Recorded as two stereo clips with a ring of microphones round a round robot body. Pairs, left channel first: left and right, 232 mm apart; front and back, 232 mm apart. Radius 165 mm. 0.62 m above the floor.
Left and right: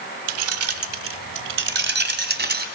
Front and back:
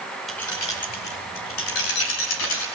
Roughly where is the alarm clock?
I don't hear an alarm clock.